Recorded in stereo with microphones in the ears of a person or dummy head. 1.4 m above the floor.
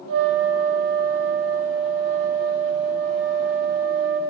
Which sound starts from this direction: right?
A flute, at 0.1 s.